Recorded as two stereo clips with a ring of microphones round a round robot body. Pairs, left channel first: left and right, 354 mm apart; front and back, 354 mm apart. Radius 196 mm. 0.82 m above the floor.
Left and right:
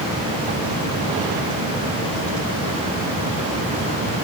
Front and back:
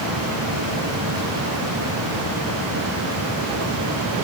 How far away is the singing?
I don't hear singing.